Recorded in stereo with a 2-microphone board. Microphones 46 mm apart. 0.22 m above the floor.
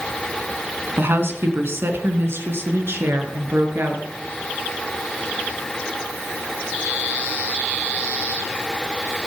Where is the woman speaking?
55° right (ahead or behind), 2 m.